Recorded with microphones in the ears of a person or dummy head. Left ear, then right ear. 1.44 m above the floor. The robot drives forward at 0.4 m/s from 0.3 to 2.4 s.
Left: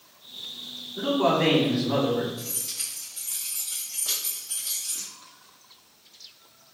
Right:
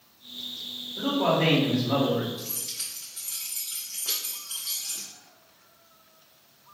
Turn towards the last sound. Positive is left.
turn(degrees=5)  # may be behind; listen again after turning